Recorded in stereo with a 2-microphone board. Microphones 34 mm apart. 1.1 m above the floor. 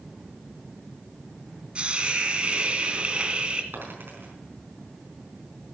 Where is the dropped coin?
85° right, 4.5 m.